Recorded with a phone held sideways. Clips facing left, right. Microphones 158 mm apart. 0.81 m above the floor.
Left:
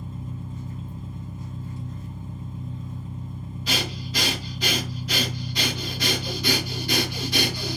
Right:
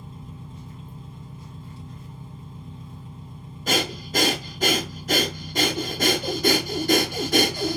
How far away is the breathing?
About 0.5 m.